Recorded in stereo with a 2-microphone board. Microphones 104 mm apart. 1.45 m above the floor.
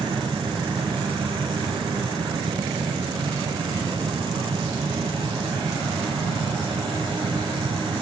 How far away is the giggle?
No giggle in this recording.